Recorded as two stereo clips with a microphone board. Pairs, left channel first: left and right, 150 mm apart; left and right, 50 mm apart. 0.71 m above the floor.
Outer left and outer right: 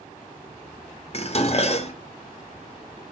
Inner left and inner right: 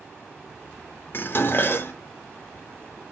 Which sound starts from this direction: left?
Dishes clattering, at 1.1 s.